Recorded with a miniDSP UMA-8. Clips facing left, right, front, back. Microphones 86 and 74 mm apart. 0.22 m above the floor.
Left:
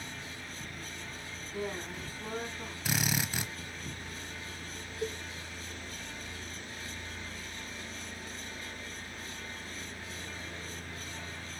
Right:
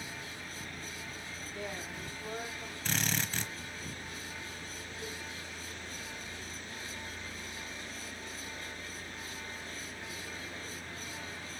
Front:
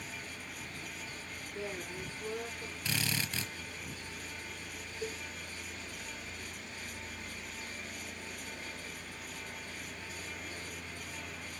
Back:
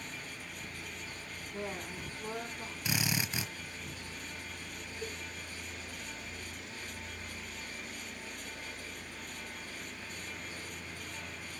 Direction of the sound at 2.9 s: 150° left.